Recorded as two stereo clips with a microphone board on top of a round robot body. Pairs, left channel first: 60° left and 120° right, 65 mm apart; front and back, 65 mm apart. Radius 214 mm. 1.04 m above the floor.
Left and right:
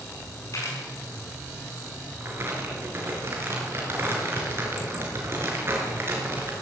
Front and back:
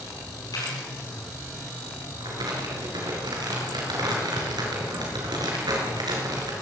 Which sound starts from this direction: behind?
Crumpling, at 2.2 s.